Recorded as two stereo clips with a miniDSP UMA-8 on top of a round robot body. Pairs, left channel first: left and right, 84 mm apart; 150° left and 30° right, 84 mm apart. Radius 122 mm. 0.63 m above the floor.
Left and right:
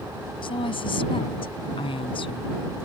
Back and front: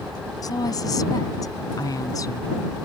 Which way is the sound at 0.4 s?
105° left.